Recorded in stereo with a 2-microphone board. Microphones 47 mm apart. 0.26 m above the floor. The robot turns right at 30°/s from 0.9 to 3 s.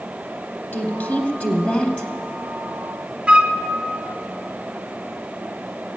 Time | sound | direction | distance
0.7 | a woman speaking | 85° left | 1.1 m
3.3 | a flute | 25° right (ahead or behind) | 0.5 m